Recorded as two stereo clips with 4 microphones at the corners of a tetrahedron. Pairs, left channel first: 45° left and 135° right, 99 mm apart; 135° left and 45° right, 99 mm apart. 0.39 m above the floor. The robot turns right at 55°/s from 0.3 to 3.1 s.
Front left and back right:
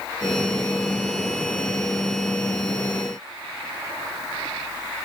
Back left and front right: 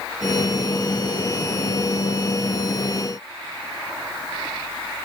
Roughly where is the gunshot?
No gunshot in this recording.